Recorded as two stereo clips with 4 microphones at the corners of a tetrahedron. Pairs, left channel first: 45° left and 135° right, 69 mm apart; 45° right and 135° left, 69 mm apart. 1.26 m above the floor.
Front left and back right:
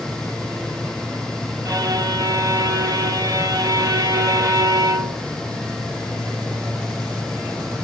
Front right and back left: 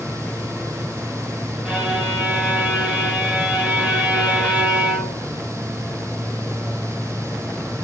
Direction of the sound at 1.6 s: 150° right.